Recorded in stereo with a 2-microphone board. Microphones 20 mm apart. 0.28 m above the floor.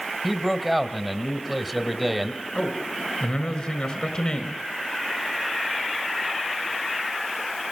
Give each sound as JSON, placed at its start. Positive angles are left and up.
{"t": 0.2, "sound": "a man speaking", "side_deg": -5, "distance_m": 1.6}
{"t": 2.5, "sound": "a man speaking", "side_deg": 35, "distance_m": 4.0}